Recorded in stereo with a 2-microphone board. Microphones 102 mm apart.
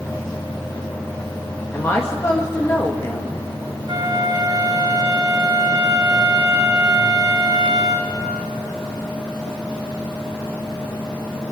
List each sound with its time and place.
1.7 s a woman speaking: 30° left (ahead or behind), 1.8 m
3.9 s a flute: 45° right (ahead or behind), 6 m